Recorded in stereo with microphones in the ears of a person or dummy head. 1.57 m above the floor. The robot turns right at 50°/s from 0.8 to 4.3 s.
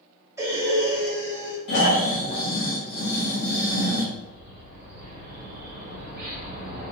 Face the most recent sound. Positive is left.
turn(degrees=-60)  # may be behind; listen again after turning